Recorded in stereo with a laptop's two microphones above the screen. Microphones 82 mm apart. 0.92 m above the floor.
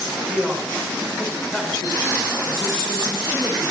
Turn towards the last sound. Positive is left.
turn(degrees=10)  # may be behind; listen again after turning